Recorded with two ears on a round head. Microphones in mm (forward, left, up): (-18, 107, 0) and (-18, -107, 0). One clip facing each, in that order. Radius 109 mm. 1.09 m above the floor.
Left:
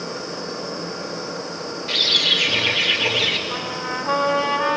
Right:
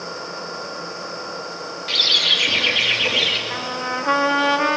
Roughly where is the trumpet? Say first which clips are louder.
Even; right.